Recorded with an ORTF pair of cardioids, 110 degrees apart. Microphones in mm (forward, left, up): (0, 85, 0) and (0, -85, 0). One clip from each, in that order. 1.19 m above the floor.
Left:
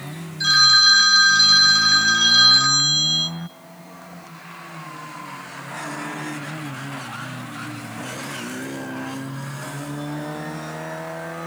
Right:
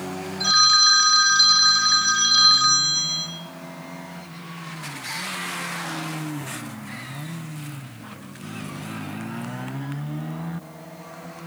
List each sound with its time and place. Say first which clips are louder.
0.4 s a phone ringing: left 2 dB; 15° left, 1.8 m